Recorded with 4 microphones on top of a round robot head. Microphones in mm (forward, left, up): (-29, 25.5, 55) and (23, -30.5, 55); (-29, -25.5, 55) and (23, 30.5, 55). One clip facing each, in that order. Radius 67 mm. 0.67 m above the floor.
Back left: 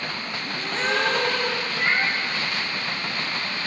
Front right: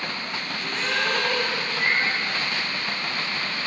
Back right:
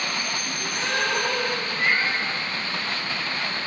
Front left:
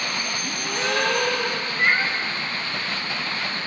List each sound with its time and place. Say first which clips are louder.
0.4 s a gasp: back left 5 dB, front left 2 dB; 70° left, 0.9 m
1.8 s a cat meowing: back left 1 dB, front left 3 dB; 105° left, 0.8 m